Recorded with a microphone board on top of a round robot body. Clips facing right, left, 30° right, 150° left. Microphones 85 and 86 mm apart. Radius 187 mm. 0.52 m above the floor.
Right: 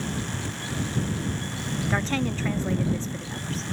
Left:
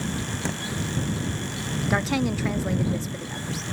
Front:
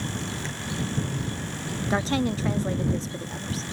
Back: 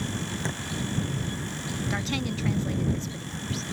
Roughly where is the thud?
Left.